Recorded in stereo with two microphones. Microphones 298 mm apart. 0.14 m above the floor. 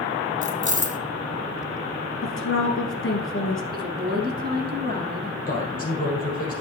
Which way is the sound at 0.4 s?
25° left (ahead or behind).